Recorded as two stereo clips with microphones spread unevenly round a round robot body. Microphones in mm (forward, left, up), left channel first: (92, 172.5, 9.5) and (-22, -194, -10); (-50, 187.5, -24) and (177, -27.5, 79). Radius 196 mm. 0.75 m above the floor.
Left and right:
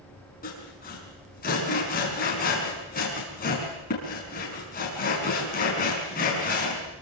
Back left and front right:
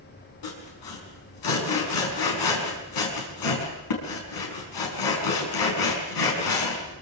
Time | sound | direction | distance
0.4 | sawing | 140° left | 5.5 m